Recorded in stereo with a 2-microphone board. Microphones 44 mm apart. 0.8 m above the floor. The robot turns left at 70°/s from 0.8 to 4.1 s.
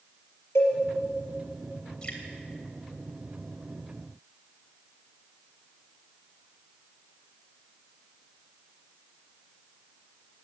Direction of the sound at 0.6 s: 85° left.